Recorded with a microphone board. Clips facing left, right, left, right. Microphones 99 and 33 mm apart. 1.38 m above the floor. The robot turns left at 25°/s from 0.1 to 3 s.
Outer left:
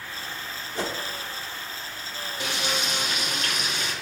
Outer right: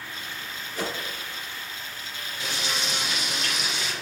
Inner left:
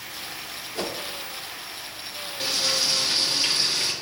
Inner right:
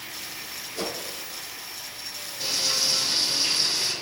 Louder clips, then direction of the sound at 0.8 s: Outer left 1 dB, inner left 1 dB; 35° left (ahead or behind).